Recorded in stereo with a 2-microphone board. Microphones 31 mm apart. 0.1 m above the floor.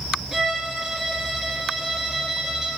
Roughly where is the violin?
Centre.